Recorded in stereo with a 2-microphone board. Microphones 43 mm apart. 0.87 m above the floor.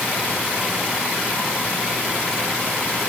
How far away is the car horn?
I don't hear a car horn.